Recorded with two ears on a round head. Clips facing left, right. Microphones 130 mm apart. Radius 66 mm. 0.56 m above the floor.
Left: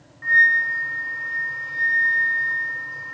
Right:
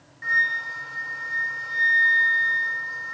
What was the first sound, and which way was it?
A flute, 40° right (ahead or behind).